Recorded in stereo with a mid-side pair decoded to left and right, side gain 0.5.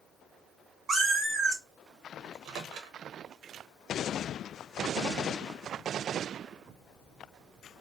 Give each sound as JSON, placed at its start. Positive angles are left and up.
{"t": 0.9, "sound": "a cat meowing", "azimuth_deg": -35, "distance_m": 2.0}
{"t": 2.2, "sound": "a microwave", "azimuth_deg": -65, "distance_m": 1.0}